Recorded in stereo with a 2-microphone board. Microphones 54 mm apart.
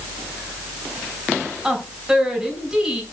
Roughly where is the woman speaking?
Centre.